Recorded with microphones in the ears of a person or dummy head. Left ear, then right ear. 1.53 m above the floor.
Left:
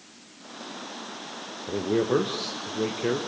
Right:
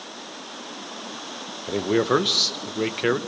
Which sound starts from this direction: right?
A man speaking, at 1.7 s.